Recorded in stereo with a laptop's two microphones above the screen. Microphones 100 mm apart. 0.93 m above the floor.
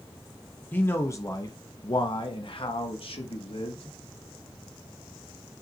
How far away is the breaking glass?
I don't hear breaking glass.